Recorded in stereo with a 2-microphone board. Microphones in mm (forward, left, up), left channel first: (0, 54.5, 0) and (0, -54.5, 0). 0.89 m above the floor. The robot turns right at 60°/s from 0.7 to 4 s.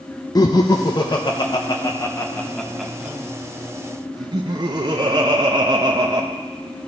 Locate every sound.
0.3 s laughter: 35° left (ahead or behind), 0.5 m; by 6.3 s 40° right (ahead or behind), 0.5 m